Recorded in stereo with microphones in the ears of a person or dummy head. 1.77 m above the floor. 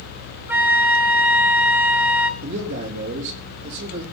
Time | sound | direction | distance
0.5 | a flute | 10° right (ahead or behind) | 0.9 m
2.4 | a man speaking | 65° right (ahead or behind) | 4 m